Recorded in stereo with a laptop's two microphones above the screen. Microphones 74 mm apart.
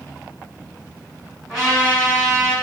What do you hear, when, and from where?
1.5 s a trumpet: 5° left (ahead or behind), 1.7 m